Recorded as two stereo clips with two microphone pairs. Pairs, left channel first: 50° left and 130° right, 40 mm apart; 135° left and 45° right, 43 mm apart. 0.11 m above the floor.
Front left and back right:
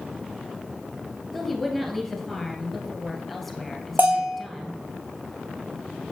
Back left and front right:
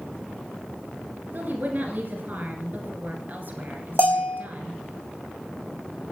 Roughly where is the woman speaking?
Ahead right.